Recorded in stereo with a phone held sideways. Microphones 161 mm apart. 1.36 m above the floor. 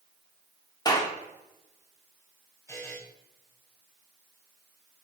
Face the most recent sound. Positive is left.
turn(degrees=15)  # may be behind; listen again after turning